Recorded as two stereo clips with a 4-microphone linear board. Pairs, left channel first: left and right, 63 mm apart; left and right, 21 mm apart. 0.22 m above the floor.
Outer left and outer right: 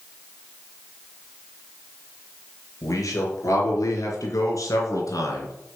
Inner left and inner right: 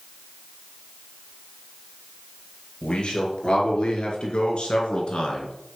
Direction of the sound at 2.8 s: 60° left (ahead or behind).